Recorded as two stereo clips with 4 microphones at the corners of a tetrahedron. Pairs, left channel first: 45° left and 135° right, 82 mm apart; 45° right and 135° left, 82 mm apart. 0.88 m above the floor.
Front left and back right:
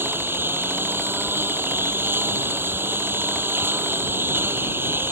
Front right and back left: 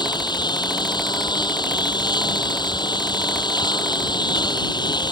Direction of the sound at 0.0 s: 75° right.